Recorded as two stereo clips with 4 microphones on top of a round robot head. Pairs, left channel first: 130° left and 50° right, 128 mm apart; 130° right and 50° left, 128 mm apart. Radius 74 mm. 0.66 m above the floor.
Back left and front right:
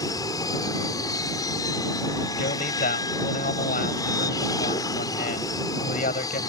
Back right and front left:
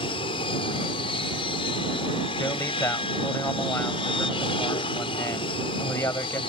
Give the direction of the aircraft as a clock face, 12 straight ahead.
6 o'clock.